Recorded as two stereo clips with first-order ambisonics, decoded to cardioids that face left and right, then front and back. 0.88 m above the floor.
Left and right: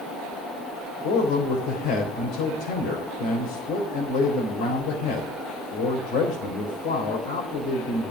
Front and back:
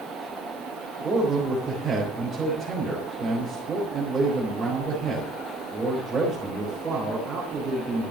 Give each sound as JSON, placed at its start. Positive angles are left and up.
{"t": 1.0, "sound": "a man speaking", "azimuth_deg": 105, "distance_m": 3.5}